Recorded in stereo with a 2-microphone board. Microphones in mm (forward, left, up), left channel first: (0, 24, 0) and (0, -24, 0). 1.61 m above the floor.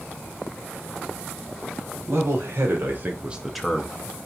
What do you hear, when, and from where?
2.1 s a man speaking: 70° right (ahead or behind), 1.3 m; by 4.2 s 35° left (ahead or behind), 0.9 m